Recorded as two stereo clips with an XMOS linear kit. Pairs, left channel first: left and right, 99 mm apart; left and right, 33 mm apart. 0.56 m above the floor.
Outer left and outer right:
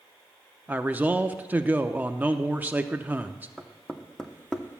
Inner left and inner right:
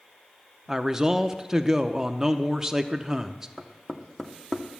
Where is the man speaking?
15° right (ahead or behind), 0.6 m.